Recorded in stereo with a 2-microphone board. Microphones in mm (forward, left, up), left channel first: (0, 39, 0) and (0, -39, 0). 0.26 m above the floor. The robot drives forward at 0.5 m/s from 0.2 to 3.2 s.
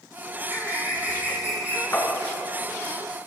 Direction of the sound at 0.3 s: 25° right (ahead or behind).